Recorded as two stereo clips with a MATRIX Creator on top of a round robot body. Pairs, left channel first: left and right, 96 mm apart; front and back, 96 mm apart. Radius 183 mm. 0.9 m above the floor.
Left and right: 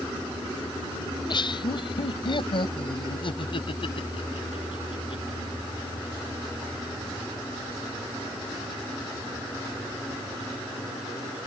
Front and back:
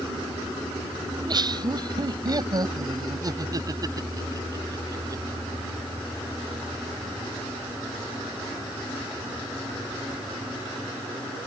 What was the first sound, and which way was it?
Laughter, 135° left.